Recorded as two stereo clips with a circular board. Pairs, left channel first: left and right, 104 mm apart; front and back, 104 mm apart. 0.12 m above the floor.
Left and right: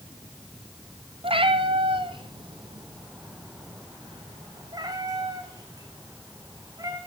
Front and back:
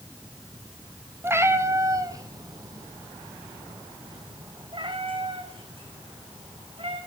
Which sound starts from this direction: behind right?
A cat meowing, at 1.2 s.